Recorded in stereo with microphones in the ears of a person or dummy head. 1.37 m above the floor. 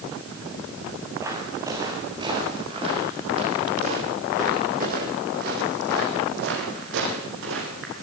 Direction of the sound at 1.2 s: 15° right (ahead or behind).